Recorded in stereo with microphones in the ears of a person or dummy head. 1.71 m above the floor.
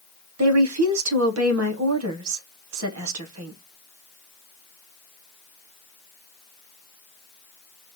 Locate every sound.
0.4 s a woman speaking: 80° right, 1.2 m